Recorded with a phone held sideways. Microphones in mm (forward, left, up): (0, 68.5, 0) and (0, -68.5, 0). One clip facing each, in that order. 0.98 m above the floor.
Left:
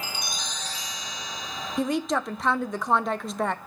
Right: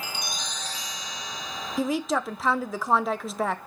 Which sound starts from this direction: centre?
A woman speaking, at 1.8 s.